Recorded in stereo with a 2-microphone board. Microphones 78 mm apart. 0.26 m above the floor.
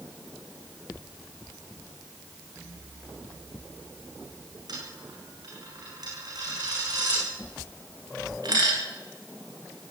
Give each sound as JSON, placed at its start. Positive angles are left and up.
{"t": 4.7, "sound": "a dropped coin", "side_deg": -60, "distance_m": 9.0}